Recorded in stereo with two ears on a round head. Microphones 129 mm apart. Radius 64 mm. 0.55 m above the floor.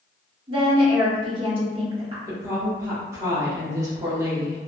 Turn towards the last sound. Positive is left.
turn(degrees=-20)  # may be behind; listen again after turning